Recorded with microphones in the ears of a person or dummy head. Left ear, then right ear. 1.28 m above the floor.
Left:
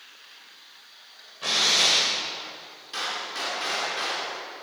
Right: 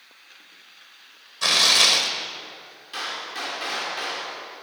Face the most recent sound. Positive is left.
turn(degrees=-5)  # may be behind; listen again after turning